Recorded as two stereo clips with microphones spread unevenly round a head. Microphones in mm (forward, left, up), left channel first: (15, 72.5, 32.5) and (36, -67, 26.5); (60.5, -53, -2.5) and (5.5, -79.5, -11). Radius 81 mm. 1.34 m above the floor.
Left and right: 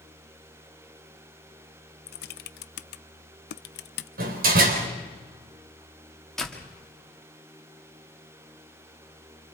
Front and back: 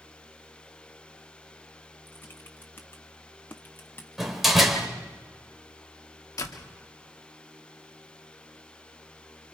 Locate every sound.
2.1 s typing on a keyboard: 100° left, 0.7 m
4.2 s a door slam: 65° right, 4 m
6.4 s a door slam: 10° left, 2.5 m